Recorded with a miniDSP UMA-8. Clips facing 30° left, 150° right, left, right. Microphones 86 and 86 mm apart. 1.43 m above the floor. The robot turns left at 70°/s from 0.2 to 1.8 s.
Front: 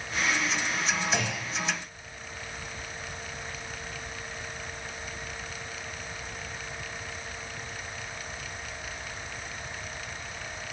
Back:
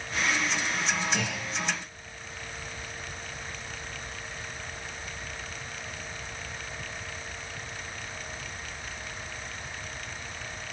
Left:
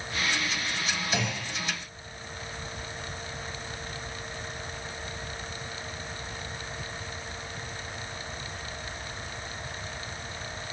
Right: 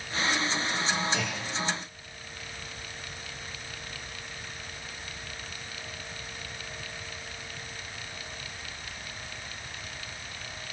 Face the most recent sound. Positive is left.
turn(degrees=20)